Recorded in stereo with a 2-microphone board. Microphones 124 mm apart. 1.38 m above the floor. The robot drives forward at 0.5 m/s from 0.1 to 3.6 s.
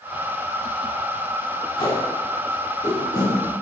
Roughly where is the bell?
I don't hear a bell.